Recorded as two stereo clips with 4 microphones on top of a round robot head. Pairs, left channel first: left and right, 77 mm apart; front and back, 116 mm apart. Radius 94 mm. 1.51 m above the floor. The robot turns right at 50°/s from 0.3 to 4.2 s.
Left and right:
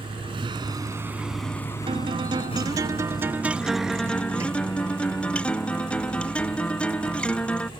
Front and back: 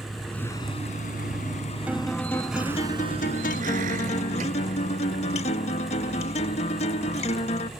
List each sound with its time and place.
0.0 s a vehicle: 90° right; by 7.8 s 135° right
1.9 s a guitar: 100° right; by 7.7 s 20° left